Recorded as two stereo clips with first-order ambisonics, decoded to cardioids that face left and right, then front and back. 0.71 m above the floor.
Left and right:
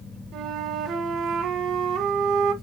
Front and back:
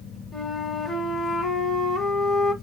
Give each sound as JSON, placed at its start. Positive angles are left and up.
{"t": 0.3, "sound": "a flute", "azimuth_deg": -90, "distance_m": 1.1}